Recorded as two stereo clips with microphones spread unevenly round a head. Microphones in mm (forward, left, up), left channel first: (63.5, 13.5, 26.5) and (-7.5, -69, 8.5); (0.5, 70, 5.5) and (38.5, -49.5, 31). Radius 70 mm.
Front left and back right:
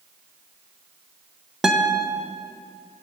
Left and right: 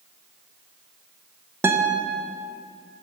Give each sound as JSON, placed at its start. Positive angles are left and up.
{"t": 1.6, "sound": "a guitar", "azimuth_deg": -35, "distance_m": 0.6}